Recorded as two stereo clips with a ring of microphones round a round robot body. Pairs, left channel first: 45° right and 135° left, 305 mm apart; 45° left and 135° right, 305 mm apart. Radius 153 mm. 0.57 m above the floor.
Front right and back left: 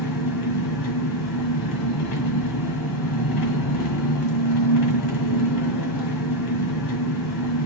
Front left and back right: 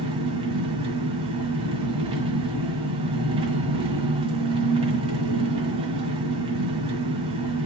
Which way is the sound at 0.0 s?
60° right.